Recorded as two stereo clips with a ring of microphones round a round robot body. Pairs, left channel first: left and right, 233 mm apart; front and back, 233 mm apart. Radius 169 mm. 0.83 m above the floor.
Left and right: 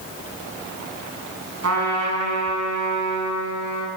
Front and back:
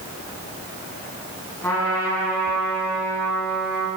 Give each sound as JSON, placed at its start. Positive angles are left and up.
{"t": 1.6, "sound": "a trumpet", "azimuth_deg": -85, "distance_m": 7.0}